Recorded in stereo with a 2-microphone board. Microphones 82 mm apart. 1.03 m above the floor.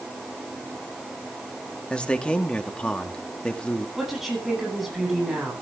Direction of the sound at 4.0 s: 5° right (ahead or behind).